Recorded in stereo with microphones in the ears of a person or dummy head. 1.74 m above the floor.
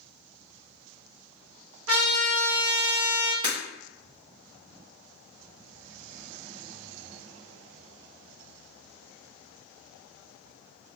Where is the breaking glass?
25° right (ahead or behind), 1.8 m.